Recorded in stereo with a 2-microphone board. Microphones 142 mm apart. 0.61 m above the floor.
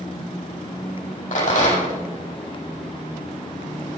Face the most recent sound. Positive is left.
turn(degrees=55)  # may be behind; listen again after turning